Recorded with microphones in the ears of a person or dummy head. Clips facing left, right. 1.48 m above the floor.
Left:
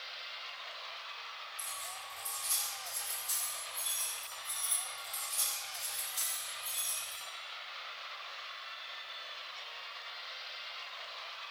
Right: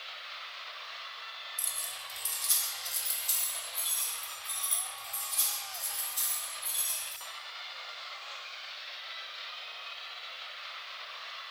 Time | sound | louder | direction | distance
1.6 | keys jangling | left 3 dB | 65° right (ahead or behind) | 0.9 m